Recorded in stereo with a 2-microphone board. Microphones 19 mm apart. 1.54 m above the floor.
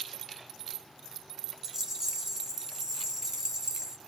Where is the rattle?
25° right (ahead or behind), 1.0 m.